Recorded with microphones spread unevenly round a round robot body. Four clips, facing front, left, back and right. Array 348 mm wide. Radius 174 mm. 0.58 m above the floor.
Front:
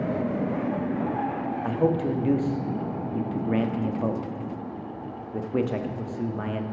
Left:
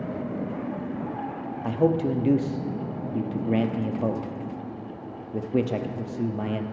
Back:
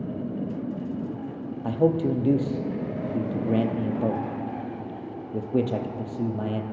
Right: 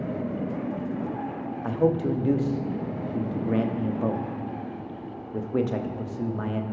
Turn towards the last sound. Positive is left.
turn(degrees=120)